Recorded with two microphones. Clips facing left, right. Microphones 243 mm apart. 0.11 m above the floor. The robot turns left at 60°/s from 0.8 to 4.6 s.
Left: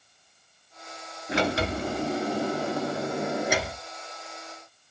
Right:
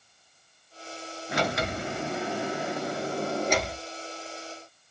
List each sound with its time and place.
1.3 s a sliding door: 145° left, 0.7 m; by 4.9 s 55° right, 0.7 m